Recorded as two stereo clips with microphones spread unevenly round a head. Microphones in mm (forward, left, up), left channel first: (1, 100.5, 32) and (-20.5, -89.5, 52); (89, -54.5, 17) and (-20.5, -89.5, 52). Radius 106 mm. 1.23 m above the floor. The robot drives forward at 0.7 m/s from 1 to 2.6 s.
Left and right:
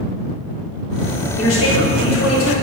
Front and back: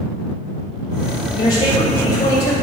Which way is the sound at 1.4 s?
70° left.